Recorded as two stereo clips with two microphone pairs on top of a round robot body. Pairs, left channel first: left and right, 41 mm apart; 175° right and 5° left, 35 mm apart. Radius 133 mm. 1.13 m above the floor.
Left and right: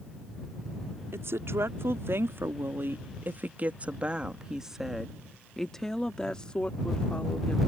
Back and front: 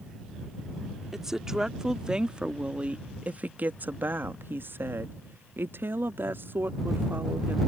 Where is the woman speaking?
75° right; by 7.6 s 35° left.